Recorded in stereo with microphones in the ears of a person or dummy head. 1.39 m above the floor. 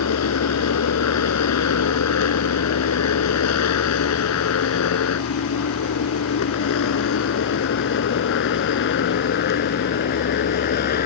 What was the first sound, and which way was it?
A motorcycle, 85° left.